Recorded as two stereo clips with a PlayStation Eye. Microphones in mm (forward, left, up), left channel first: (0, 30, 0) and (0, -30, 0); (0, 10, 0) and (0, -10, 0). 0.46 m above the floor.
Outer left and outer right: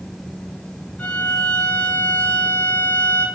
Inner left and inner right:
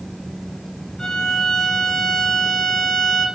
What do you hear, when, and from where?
1.0 s a violin: 15° left (ahead or behind), 2 m